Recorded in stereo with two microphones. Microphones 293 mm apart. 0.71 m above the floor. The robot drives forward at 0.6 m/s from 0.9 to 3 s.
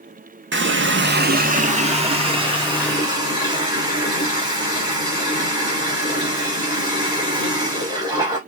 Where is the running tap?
40° right (ahead or behind), 0.6 m; by 8.4 s 15° right (ahead or behind), 1.5 m.